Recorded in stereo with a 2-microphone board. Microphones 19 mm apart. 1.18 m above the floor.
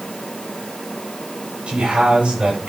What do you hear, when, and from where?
1.7 s a man speaking: 85° right, 7.5 m